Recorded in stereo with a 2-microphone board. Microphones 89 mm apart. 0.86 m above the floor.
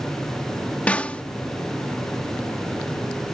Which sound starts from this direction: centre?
A snare drum, at 0.9 s.